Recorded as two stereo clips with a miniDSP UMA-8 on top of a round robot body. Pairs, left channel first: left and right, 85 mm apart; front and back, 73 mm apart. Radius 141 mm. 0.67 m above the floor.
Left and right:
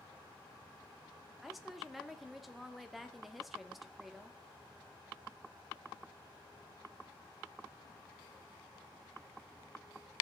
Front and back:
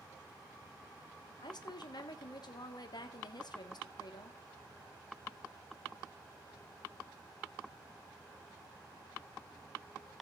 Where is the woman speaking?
Straight ahead, 1.8 m.